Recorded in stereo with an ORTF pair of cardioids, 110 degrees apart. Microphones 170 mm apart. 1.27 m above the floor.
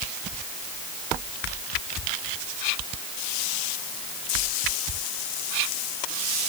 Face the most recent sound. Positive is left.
No sound to turn to.